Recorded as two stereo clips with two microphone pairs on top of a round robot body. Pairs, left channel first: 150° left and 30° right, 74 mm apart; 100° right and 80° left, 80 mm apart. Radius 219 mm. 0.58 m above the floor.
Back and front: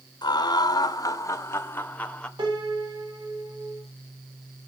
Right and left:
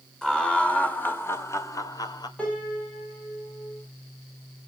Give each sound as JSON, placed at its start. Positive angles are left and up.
{"t": 0.2, "sound": "laughter", "azimuth_deg": 175, "distance_m": 3.5}
{"t": 2.4, "sound": "a piano", "azimuth_deg": -25, "distance_m": 6.5}